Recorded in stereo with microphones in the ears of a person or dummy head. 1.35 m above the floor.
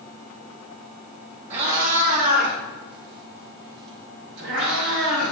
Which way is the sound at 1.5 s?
40° right (ahead or behind).